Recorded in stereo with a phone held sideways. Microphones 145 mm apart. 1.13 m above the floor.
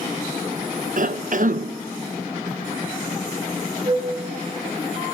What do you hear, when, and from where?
1.0 s a cough: 60° right (ahead or behind), 0.7 m
3.9 s a flute: 35° right (ahead or behind), 2.5 m